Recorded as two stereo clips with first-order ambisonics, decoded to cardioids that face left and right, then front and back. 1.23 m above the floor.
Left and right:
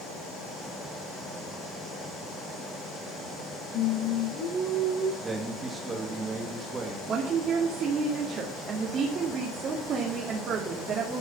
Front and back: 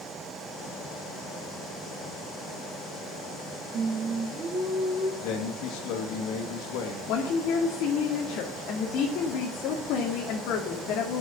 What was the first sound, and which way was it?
Singing, 125° left.